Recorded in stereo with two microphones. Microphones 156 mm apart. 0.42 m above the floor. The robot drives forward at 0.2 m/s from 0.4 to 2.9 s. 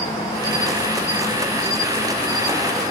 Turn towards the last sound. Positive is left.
turn(degrees=20)  # may be behind; listen again after turning